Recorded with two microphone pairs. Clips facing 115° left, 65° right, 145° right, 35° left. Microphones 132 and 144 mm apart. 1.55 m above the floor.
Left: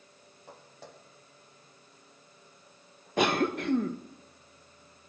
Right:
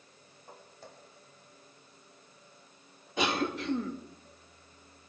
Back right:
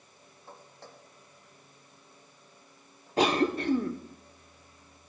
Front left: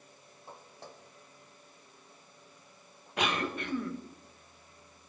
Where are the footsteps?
110° left, 3.5 m; by 3.9 s 100° left, 5.5 m.